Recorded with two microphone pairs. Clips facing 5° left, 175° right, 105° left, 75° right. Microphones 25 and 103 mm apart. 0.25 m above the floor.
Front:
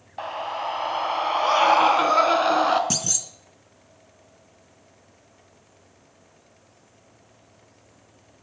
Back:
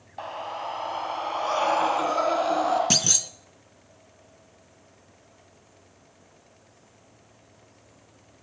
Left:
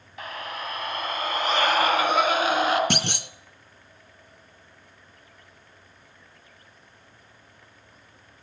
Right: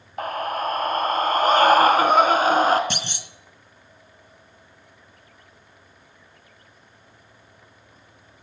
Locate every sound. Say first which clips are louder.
0.2 s a scream: front 4 dB, right 9 dB; 60° right, 1.6 m; by 2.8 s 30° right, 2.5 m
2.9 s a clunk: back 4 dB, left 4 dB; 135° left, 0.8 m